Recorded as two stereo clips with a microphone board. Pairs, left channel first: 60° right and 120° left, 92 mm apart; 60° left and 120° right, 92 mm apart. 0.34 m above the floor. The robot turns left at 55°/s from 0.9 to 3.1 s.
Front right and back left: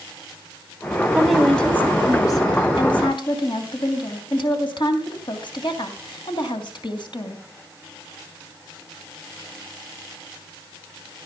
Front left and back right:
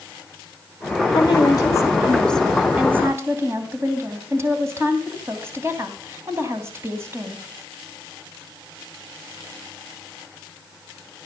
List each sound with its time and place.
1.1 s a woman speaking: 45° left, 3 m; by 7.4 s 65° right, 3 m